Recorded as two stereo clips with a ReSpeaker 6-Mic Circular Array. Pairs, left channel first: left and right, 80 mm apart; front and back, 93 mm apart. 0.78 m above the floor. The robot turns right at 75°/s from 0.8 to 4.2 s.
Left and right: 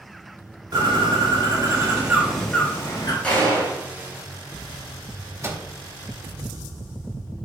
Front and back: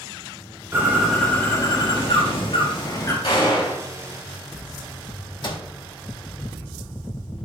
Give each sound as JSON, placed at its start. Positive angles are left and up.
{"t": 0.7, "sound": "a bird", "azimuth_deg": -120, "distance_m": 3.0}
{"t": 3.2, "sound": "a gunshot", "azimuth_deg": 15, "distance_m": 4.0}
{"t": 5.4, "sound": "a microwave", "azimuth_deg": -35, "distance_m": 1.7}